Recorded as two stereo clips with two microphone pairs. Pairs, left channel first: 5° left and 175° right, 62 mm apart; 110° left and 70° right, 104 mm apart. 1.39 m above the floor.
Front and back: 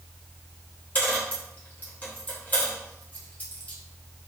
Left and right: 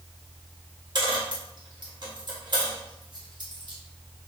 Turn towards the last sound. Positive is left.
turn(degrees=-50)